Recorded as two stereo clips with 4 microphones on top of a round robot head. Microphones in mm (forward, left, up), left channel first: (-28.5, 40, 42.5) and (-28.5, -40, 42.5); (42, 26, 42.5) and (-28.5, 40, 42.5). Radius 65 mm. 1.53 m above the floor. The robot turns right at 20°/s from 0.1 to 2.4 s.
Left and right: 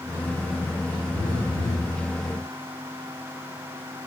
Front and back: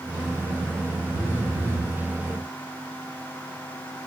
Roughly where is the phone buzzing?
Ahead left.